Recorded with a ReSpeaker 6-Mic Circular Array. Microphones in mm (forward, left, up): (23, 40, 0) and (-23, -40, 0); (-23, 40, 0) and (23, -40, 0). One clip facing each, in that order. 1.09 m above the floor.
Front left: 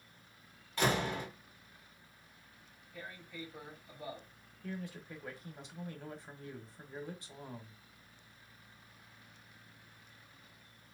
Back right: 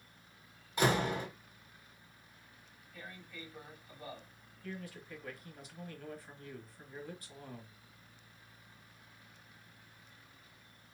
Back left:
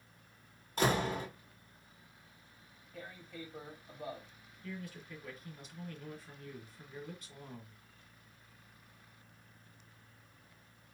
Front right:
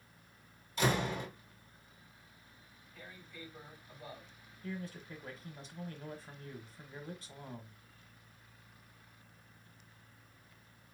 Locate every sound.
0.8 s a door slam: 165° left, 1.5 m
2.9 s tearing paper: 135° left, 1.8 m
4.6 s a man speaking: 5° right, 1.3 m